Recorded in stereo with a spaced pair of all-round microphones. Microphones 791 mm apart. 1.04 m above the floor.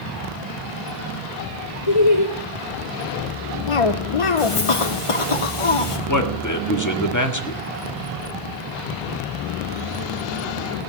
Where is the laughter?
45° left (ahead or behind), 2.5 m.